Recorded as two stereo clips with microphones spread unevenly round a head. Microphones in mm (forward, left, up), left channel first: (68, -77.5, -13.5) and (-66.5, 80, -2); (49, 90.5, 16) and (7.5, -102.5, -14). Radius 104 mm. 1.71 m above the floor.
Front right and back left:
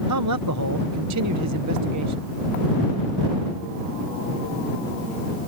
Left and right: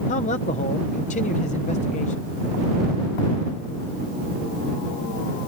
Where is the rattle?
No rattle in this recording.